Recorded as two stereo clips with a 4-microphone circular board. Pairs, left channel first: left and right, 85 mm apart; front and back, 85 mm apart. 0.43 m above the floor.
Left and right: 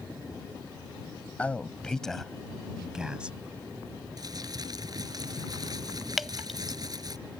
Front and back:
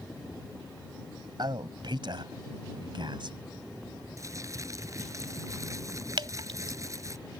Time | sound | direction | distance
1.4 | a man speaking | 160° left | ?
4.2 | crumpling | 130° right | ?
6.2 | dripping | straight behind | ?